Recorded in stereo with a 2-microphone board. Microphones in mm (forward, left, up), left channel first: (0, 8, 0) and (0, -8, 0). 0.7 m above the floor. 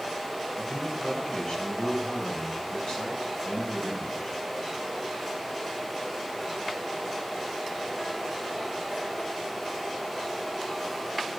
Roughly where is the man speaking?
Left.